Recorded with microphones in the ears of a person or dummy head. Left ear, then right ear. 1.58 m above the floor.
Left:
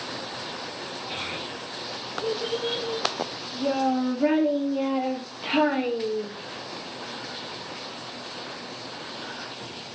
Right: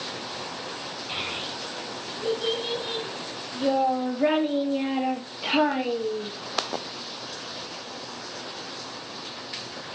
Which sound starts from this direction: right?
A child speaking, at 1.1 s.